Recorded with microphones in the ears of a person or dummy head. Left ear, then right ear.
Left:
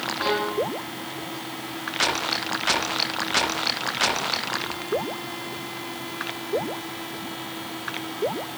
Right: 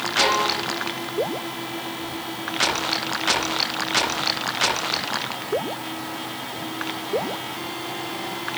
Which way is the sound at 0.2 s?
70° right (ahead or behind).